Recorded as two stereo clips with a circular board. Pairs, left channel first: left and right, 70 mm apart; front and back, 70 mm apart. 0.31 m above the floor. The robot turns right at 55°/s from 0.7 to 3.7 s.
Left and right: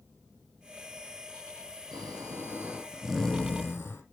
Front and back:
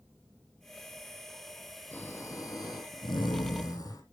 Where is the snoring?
70° right, 3 m; by 4.0 s 30° left, 3 m.